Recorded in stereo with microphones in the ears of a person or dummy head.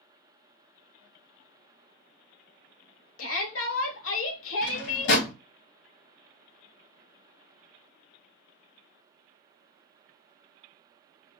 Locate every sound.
3.2 s a shout: 65° left (ahead or behind), 0.7 m
4.6 s a drawer: 65° left (ahead or behind), 0.9 m